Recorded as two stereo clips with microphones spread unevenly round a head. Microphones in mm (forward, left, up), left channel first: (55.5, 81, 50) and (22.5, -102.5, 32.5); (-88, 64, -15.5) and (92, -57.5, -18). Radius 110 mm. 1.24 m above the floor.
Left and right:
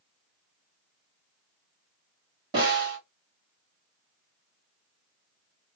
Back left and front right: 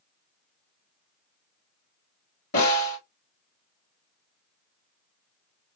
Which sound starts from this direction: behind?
A snare drum, at 2.5 s.